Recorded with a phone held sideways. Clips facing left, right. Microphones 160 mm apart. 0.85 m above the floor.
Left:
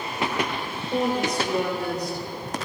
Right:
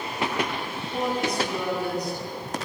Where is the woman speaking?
75° left (ahead or behind), 3.5 m; by 2.7 s 70° left (ahead or behind), 3 m.